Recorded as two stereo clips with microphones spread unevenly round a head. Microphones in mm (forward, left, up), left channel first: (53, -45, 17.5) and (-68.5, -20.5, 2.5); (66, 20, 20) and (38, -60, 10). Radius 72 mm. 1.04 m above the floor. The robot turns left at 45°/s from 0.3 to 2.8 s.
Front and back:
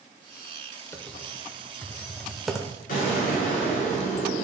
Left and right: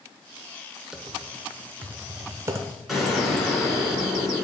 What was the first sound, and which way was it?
Typing on a keyboard, 20° right.